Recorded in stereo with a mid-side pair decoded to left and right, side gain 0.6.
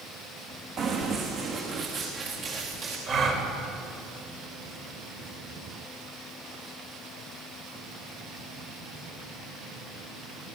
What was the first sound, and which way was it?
Running footsteps, 50° right.